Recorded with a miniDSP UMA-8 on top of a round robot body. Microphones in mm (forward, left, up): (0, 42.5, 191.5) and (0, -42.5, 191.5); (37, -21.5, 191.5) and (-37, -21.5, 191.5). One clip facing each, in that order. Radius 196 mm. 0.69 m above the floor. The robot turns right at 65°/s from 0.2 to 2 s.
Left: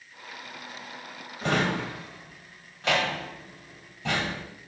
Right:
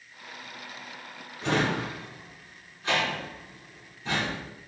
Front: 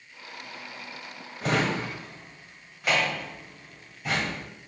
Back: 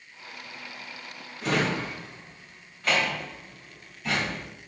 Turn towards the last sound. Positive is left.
turn(degrees=80)